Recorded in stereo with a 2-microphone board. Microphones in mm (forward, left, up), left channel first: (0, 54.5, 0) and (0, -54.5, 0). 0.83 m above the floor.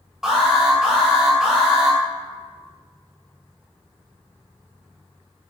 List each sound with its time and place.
0.2 s an alarm: 5° right (ahead or behind), 3 m